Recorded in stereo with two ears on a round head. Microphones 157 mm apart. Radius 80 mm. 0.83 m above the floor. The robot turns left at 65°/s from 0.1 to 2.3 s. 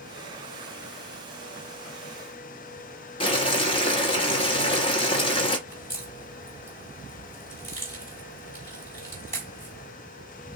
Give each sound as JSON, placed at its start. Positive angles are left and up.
{"t": 3.2, "sound": "boiling", "side_deg": 30, "distance_m": 0.9}
{"t": 5.7, "sound": "a crack", "side_deg": 15, "distance_m": 3.5}